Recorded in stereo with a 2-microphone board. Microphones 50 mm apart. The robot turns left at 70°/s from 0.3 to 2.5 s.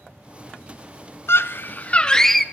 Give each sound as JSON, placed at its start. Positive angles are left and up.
{"t": 1.3, "sound": "a scream", "azimuth_deg": 80, "distance_m": 0.5}